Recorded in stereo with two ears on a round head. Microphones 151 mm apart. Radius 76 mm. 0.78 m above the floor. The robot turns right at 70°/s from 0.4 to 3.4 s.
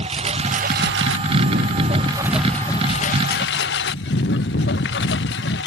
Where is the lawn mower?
140° right; by 5.7 s 70° left.